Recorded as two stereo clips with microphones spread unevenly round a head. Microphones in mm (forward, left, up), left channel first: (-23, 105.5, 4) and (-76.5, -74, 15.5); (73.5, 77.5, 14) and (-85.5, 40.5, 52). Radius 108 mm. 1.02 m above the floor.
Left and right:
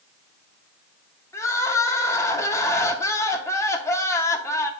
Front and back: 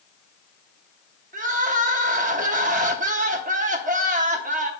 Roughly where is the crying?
Behind left.